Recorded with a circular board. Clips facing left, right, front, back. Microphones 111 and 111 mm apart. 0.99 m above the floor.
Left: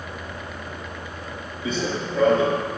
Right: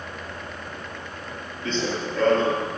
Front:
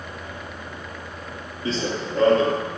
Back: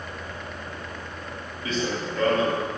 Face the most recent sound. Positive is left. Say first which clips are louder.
# left 1 dB, front 2 dB
turn(degrees=20)